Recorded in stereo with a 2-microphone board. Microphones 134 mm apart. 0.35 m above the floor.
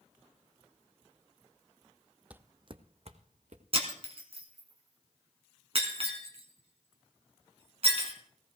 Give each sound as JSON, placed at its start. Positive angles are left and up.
{"t": 2.3, "sound": "footsteps", "side_deg": -10, "distance_m": 0.5}
{"t": 3.7, "sound": "breaking glass", "side_deg": -45, "distance_m": 2.5}